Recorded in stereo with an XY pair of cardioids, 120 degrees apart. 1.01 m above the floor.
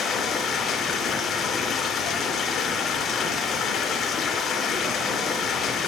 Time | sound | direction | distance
0.0 | running water | 45° left | 3.5 m